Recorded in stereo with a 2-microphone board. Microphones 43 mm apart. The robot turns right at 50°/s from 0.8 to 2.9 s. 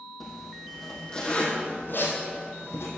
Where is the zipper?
5° left (ahead or behind), 3 m; by 2.9 s 70° left (ahead or behind), 3 m.